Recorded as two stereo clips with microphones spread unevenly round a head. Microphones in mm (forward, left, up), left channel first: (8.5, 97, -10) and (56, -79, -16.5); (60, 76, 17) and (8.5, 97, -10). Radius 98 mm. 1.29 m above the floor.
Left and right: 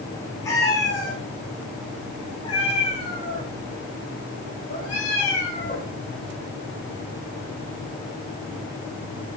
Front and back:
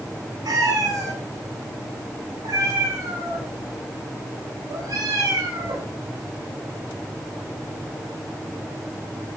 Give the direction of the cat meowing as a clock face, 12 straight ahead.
6 o'clock.